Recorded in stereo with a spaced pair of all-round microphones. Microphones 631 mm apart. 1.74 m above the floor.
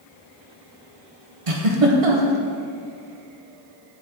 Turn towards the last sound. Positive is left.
turn(degrees=-60)  # may be behind; listen again after turning